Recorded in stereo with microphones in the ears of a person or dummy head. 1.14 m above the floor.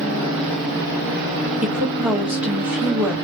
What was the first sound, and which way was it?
A woman speaking, 5° right (ahead or behind).